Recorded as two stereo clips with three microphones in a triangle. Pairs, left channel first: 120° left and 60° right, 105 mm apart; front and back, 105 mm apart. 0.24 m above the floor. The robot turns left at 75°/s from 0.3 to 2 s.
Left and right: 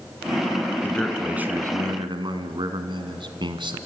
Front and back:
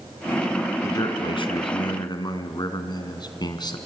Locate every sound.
0.8 s a man speaking: 55° left, 2 m; by 3.8 s 35° right, 2 m